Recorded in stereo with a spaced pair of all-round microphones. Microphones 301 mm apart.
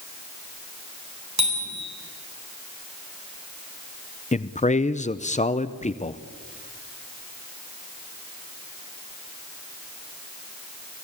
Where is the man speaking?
25° left (ahead or behind), 0.6 m.